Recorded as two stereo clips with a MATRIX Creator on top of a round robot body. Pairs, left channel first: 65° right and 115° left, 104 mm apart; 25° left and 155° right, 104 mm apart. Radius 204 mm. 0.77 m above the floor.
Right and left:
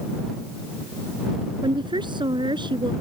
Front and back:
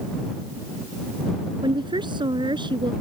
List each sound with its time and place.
1.6 s a woman speaking: 160° left